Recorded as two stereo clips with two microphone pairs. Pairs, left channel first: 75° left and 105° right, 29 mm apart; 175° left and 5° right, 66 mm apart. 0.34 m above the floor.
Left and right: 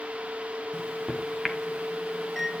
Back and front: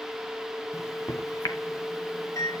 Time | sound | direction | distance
0.7 | a microwave | 155° left | 1.5 m